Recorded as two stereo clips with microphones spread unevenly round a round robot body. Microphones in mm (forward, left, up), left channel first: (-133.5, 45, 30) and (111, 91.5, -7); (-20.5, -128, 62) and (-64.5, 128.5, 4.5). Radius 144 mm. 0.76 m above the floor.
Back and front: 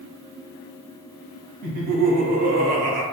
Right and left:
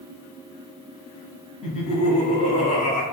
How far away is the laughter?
About 0.8 m.